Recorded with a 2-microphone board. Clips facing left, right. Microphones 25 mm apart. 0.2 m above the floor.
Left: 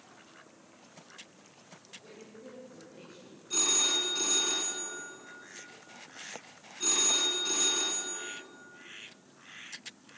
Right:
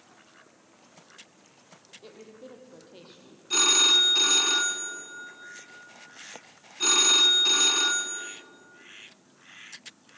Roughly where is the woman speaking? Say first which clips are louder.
Right 6 dB; right.